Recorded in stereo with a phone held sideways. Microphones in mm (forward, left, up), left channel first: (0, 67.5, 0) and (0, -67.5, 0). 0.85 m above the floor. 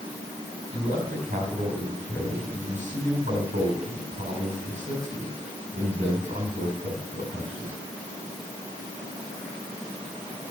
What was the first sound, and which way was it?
A man speaking, 65° right (ahead or behind).